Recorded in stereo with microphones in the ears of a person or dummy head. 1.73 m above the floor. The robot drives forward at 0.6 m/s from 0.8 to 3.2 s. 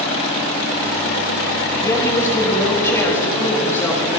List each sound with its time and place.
1.8 s a woman speaking: 15° left (ahead or behind), 3.5 m